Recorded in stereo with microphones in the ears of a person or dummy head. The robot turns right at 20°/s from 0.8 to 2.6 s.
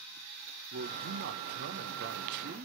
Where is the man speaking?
85° right, 0.6 m; by 2.6 s 45° right, 0.6 m.